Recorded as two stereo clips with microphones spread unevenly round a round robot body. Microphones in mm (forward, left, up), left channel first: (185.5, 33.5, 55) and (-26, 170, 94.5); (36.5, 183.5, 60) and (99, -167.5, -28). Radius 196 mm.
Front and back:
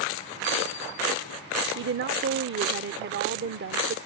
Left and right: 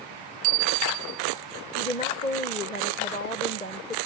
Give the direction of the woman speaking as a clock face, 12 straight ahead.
6 o'clock.